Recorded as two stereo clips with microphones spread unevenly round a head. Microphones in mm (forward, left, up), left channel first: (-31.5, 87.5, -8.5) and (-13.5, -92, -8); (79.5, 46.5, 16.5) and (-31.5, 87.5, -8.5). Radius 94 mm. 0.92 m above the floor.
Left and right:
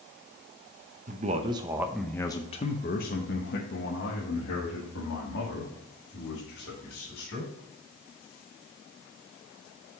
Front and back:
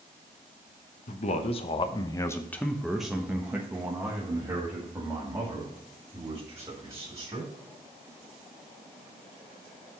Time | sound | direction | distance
1.1 | a man speaking | 50° right | 0.8 m